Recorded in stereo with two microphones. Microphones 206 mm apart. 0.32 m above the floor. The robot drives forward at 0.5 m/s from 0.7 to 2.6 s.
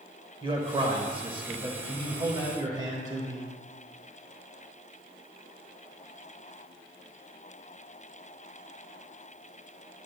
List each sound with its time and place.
0.4 s a man speaking: 25° right (ahead or behind), 1.1 m; by 3.5 s 20° right (ahead or behind), 1.4 m